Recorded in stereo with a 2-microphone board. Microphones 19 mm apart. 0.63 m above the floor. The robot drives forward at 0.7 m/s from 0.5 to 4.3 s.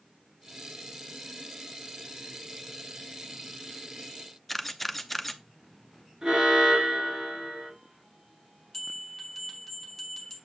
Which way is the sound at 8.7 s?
10° left (ahead or behind).